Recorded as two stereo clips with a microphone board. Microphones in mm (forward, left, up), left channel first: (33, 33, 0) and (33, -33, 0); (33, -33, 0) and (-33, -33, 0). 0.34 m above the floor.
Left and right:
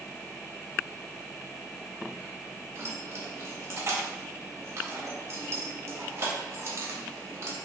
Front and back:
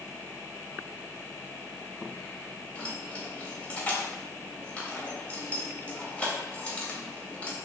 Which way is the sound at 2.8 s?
65° right.